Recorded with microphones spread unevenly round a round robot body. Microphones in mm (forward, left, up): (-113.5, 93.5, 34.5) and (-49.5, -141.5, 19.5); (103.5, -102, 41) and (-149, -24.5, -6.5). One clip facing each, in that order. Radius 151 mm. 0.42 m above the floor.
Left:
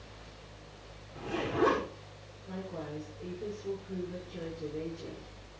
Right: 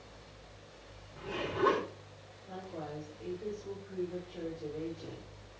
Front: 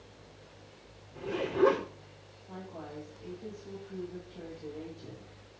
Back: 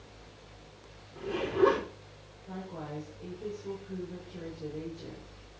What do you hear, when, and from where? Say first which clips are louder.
1.1 s a zipper: left 3 dB, back 1 dB; 70° left, 5.5 m
2.5 s a woman speaking: left 3 dB, back 3 dB; 135° left, 8.5 m